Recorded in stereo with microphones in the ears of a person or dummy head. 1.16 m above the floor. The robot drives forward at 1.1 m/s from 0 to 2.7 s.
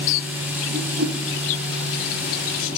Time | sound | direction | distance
0.7 | a whoosh | 55° right (ahead or behind) | 1.4 m